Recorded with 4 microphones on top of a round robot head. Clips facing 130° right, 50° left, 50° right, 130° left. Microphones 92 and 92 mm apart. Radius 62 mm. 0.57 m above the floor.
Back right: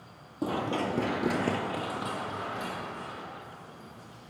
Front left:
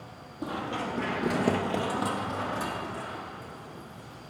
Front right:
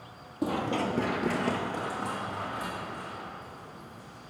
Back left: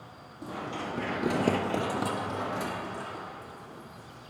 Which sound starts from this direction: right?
Running footsteps, at 0.4 s.